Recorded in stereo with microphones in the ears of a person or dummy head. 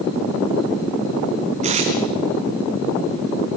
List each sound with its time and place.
1.6 s tape being pulled: 40° right (ahead or behind), 4 m